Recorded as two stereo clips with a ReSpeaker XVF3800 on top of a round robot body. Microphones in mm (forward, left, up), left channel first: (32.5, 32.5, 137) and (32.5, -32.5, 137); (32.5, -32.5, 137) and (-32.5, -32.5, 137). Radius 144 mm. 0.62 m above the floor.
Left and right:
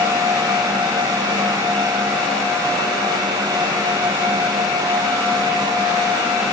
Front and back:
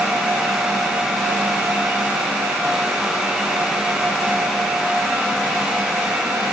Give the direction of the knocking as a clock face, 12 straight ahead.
No knocking in this recording.